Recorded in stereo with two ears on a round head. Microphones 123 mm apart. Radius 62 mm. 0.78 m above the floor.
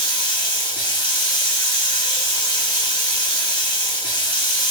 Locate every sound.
0.0 s running water: 10° right (ahead or behind), 2.0 m